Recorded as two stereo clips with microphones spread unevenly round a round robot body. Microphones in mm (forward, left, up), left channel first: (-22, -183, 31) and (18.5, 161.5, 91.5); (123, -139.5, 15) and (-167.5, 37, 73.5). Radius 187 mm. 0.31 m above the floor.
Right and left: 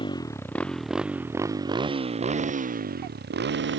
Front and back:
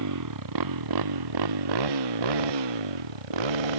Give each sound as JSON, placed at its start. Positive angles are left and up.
{"t": 0.0, "sound": "a motorcycle", "azimuth_deg": -175}